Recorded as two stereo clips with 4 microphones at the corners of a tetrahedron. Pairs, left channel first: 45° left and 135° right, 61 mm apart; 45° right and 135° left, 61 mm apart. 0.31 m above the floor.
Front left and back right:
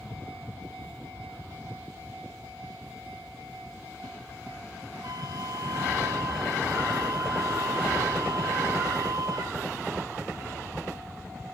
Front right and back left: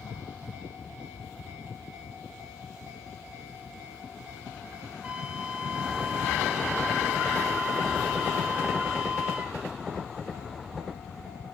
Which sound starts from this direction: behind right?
A flute, at 5.0 s.